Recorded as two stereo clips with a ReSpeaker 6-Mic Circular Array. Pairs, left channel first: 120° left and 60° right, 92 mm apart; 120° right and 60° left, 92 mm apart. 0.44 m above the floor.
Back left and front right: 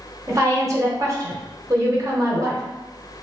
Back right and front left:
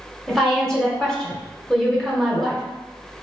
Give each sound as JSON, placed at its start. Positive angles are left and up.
{"t": 0.3, "sound": "a woman speaking", "azimuth_deg": -40, "distance_m": 0.9}